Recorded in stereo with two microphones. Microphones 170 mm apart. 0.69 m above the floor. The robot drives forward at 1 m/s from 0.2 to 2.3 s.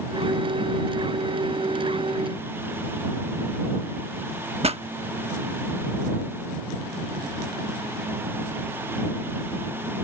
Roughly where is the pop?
Right.